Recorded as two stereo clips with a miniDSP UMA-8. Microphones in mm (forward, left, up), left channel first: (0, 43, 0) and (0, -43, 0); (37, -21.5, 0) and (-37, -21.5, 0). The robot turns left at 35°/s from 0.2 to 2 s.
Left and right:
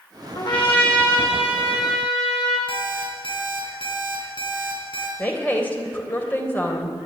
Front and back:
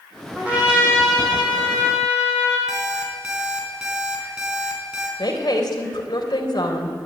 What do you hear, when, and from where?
0.3 s a trumpet: 115° left, 7.5 m; by 2.6 s 55° left, 7.5 m
2.7 s an alarm clock: 100° left, 4 m
5.2 s a woman speaking: 20° left, 3.5 m